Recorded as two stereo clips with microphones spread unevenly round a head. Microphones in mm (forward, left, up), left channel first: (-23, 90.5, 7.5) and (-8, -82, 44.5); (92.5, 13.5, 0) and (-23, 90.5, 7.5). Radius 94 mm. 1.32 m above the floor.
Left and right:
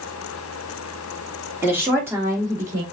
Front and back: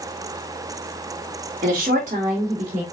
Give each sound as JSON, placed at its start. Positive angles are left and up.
{"t": 1.6, "sound": "a woman speaking", "azimuth_deg": -165, "distance_m": 2.0}